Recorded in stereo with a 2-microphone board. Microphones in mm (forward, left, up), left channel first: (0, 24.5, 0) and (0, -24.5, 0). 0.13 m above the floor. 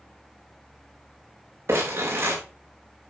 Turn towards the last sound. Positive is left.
turn(degrees=-55)  # may be behind; listen again after turning